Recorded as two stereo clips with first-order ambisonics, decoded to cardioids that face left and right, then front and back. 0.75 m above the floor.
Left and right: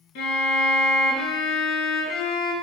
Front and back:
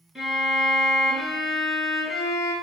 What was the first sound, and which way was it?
A violin, 95° left.